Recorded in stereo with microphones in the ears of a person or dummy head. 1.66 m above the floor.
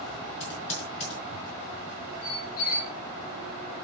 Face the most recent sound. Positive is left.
turn(degrees=45)  # may be behind; listen again after turning